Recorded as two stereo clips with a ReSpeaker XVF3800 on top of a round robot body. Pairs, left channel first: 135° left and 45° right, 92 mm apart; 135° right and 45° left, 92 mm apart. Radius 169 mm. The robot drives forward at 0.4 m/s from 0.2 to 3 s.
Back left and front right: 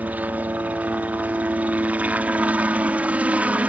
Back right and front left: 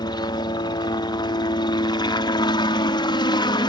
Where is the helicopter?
115° right; by 3.7 s 120° right.